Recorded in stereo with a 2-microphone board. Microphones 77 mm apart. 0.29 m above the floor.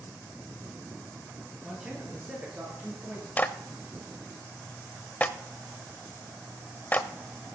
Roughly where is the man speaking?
Centre.